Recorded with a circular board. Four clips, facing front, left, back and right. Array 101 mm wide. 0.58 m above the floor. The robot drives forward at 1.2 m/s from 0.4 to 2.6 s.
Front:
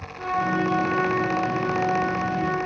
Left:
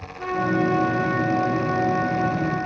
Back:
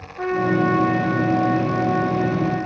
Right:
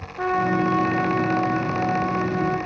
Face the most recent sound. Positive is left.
turn(degrees=-135)